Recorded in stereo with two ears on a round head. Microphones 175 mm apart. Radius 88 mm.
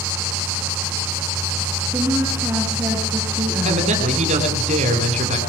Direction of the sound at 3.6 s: 40° right (ahead or behind).